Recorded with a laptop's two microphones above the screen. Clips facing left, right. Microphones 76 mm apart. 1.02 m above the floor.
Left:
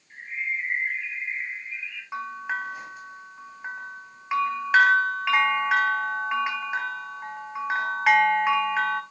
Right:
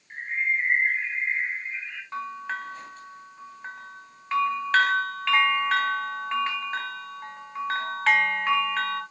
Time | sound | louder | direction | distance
0.1 | a bird | right 4 dB | 50° right (ahead or behind) | 1.5 m
2.1 | a bell | left 2 dB | 15° left (ahead or behind) | 2.5 m